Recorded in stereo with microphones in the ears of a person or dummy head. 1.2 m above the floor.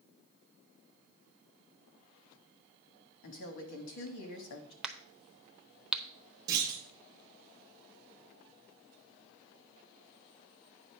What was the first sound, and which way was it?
A woman speaking, 65° left (ahead or behind).